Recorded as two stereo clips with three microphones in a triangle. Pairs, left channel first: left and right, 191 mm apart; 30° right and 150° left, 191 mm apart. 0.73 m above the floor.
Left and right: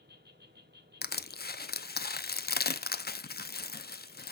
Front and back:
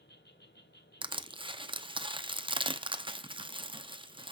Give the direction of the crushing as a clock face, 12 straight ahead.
9 o'clock.